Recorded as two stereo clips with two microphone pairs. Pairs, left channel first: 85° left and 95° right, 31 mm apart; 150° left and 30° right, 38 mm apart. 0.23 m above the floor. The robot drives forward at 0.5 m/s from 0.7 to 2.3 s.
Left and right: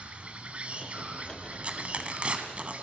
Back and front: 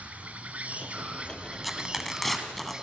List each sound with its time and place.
0.0 s an insect: 65° right, 2 m; by 2.8 s 95° right, 2 m
1.6 s tearing paper: 115° right, 2 m; by 2.7 s 125° right, 2.5 m